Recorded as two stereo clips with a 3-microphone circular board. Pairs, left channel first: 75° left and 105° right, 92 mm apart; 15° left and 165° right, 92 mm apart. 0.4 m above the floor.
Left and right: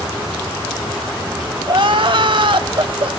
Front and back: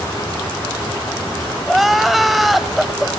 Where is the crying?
75° right, 0.7 m.